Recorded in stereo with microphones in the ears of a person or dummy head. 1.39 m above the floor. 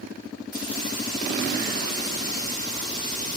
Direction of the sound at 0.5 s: 25° left (ahead or behind).